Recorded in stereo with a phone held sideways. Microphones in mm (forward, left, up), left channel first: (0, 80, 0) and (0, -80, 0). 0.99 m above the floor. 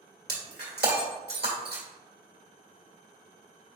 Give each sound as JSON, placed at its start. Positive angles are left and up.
{"t": 0.3, "sound": "breaking glass", "side_deg": -80, "distance_m": 1.5}